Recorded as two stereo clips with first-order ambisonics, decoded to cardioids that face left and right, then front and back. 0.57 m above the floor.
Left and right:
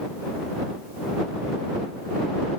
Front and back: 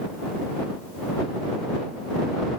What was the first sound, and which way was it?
Only background noise.